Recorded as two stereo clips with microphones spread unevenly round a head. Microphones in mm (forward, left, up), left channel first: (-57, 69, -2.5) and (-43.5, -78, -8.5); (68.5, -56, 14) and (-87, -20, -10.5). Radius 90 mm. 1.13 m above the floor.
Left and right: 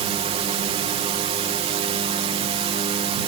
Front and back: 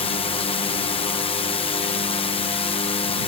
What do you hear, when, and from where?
0.0 s a drone: 60° right